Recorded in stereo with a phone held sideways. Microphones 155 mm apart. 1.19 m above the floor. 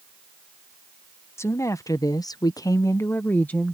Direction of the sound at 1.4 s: 15° left (ahead or behind).